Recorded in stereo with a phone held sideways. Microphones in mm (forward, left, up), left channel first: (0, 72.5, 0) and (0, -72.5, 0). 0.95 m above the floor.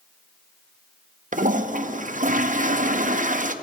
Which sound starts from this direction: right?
A toilet flushing, at 1.3 s.